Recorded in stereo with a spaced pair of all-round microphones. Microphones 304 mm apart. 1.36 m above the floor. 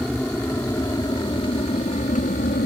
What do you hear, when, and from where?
0.0 s an aircraft: 5° left (ahead or behind); by 2.7 s 30° left (ahead or behind)